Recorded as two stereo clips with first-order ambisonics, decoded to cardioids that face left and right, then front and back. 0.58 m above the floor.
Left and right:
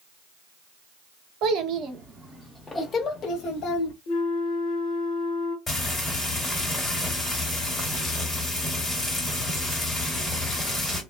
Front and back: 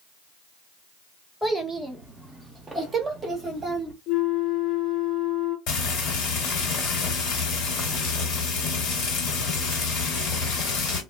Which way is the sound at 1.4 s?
90° right.